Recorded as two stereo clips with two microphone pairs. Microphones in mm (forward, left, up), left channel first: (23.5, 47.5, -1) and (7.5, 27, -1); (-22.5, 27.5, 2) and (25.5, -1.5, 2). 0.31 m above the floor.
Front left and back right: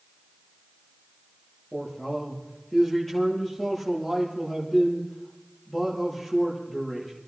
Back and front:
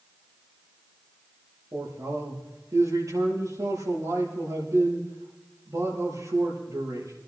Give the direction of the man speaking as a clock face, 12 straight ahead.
1 o'clock.